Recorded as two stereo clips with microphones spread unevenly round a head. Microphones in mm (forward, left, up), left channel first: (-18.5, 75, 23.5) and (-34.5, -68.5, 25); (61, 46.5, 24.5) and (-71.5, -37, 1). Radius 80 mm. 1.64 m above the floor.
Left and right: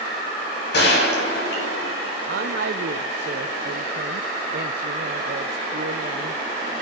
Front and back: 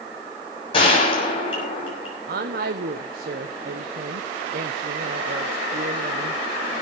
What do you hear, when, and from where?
0.7 s a gunshot: 90° left, 6.5 m
2.3 s a woman speaking: 105° right, 0.8 m